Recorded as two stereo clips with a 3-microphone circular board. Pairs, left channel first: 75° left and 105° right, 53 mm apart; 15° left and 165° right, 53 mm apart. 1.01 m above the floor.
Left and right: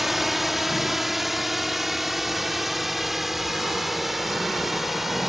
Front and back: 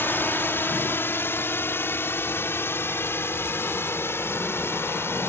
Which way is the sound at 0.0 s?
20° right.